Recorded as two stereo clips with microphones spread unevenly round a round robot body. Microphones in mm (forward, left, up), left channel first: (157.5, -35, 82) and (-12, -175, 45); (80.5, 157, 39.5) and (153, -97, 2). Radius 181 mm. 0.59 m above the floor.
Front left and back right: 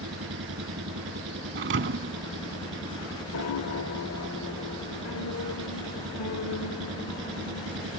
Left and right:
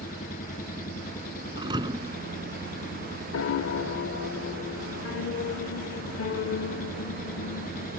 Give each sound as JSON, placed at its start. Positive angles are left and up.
{"t": 0.0, "sound": "an engine running", "azimuth_deg": 175}
{"t": 1.6, "sound": "a thud", "azimuth_deg": -155}
{"t": 3.3, "sound": "a piano", "azimuth_deg": 65}